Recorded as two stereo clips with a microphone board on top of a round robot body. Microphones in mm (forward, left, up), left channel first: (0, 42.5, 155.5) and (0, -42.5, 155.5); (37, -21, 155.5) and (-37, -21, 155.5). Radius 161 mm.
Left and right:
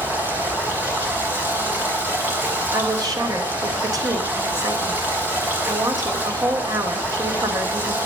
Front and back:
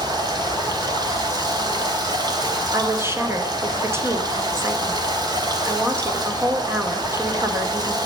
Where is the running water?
155° right, 3.5 m.